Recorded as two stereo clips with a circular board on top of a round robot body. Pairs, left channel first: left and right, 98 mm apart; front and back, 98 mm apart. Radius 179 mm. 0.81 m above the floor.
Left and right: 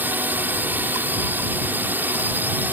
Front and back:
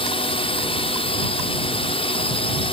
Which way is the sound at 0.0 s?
20° right.